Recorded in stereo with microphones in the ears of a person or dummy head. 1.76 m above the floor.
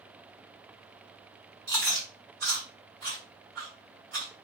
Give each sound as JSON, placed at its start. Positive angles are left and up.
{"t": 1.7, "sound": "chewing", "side_deg": -60, "distance_m": 2.0}